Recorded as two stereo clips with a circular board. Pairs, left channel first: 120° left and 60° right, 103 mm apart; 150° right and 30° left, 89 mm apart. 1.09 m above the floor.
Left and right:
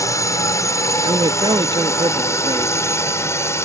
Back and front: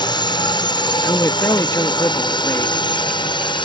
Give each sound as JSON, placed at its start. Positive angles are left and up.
{"t": 0.0, "sound": "a drone", "azimuth_deg": 180}
{"t": 1.0, "sound": "a man speaking", "azimuth_deg": -95}